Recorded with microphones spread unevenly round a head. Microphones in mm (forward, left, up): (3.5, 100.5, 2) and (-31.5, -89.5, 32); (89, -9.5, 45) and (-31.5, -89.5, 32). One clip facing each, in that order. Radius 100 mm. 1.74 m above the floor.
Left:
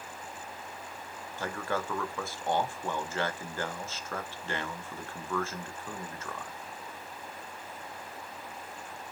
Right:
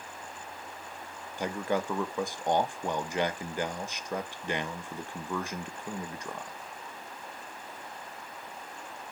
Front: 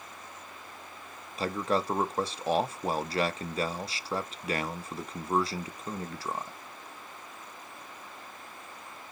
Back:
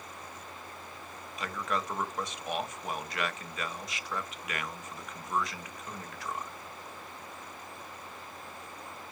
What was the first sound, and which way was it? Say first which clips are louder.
A man speaking: right 4 dB, front 6 dB; 25° right.